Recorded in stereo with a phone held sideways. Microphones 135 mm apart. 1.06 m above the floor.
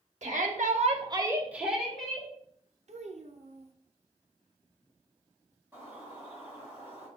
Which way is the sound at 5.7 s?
20° right (ahead or behind).